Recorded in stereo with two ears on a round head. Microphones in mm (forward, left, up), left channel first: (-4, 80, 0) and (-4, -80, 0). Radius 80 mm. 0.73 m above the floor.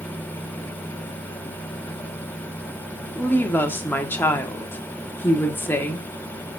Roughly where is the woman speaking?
Centre.